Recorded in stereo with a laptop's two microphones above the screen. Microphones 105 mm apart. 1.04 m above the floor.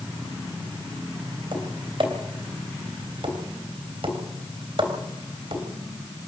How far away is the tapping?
About 3 m.